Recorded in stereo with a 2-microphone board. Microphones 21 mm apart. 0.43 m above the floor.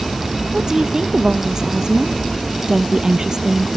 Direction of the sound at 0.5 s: 35° right (ahead or behind).